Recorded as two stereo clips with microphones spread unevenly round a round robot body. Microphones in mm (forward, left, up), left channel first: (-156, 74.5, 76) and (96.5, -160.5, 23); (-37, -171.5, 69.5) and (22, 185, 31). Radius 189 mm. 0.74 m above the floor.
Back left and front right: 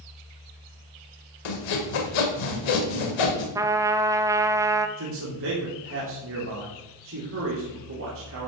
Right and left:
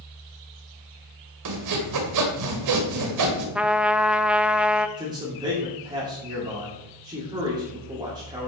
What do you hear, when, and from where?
1.4 s sawing: 120° left, 2.0 m
3.5 s a trumpet: 10° left, 0.6 m
5.0 s a man speaking: 5° left, 2.5 m